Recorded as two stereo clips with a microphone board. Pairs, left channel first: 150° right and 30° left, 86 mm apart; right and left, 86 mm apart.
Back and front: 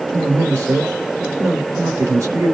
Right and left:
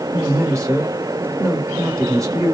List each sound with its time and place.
0.1 s a man speaking: 65° left, 1.3 m